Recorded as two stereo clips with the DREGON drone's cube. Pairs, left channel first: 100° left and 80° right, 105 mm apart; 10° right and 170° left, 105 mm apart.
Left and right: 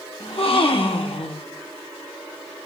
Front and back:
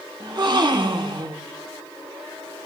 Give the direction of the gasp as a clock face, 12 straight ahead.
8 o'clock.